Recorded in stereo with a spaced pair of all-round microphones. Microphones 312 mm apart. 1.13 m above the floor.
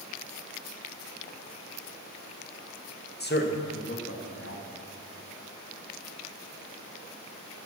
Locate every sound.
3.2 s a man speaking: 30° left (ahead or behind), 1.4 m; by 4.6 s 45° left (ahead or behind), 3 m